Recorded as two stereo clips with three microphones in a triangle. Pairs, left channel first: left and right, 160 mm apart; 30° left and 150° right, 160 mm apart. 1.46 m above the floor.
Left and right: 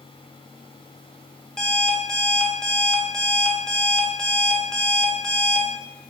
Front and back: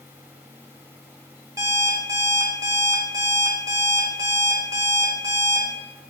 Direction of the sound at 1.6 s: 170° left.